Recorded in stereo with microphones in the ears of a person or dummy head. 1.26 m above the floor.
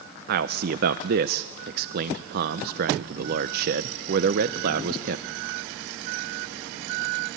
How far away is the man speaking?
About 0.7 m.